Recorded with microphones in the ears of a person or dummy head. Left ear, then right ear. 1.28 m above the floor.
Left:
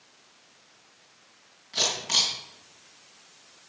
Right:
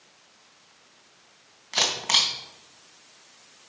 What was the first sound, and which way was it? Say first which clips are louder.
A camera shutter: right 3 dB; 40° right (ahead or behind).